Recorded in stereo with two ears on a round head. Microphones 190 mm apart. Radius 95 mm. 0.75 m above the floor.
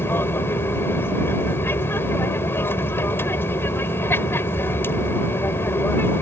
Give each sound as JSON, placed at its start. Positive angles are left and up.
{"t": 0.0, "sound": "an aircraft", "side_deg": 10}